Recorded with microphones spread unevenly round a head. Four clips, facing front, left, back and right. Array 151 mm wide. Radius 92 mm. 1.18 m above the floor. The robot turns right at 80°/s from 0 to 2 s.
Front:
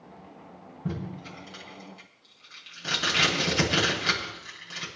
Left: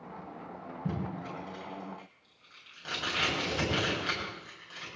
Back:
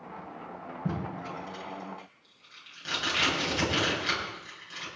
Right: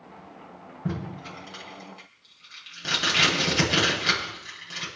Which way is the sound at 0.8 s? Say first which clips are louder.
Right 3 dB, even; 145° right.